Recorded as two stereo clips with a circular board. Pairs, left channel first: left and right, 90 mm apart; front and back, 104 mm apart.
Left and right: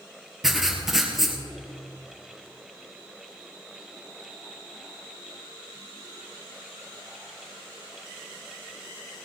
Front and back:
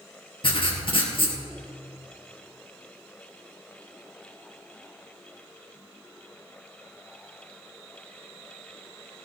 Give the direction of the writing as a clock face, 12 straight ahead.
12 o'clock.